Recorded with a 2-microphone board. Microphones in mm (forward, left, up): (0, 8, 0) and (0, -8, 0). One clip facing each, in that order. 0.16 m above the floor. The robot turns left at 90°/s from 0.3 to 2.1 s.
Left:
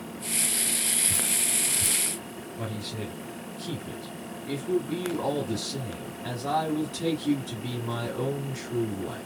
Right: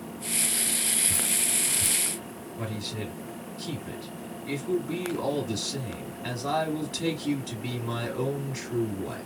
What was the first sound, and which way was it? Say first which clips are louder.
Dripping: even; 30° left (ahead or behind).